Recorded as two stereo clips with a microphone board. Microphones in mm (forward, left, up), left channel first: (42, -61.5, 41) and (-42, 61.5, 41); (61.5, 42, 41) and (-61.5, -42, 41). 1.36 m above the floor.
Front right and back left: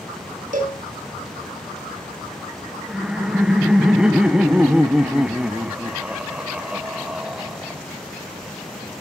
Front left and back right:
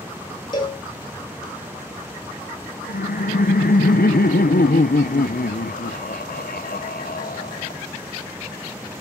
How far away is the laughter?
About 1.0 m.